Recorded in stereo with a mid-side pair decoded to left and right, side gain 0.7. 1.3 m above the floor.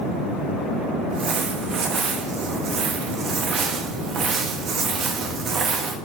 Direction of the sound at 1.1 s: 40° right.